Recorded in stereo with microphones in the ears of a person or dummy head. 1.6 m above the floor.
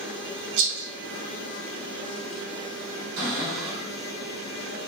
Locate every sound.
0.6 s a rattle: 75° right (ahead or behind), 1.0 m
3.2 s a cupboard door: 50° right (ahead or behind), 1.6 m